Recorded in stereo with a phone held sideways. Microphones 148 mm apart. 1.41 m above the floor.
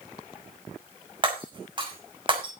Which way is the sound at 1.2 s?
35° right (ahead or behind).